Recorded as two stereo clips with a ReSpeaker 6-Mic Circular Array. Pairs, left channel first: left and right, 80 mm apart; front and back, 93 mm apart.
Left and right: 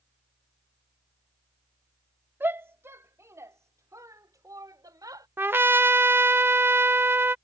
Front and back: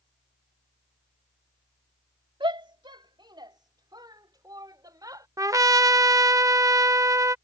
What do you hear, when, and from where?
2.4 s a shout: 150° right; by 5.3 s 130° right
5.4 s a trumpet: 140° right